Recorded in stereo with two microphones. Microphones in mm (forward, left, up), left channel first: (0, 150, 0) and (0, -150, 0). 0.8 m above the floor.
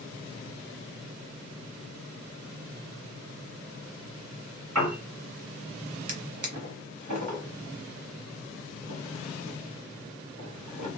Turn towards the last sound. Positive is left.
turn(degrees=-75)  # may be behind; listen again after turning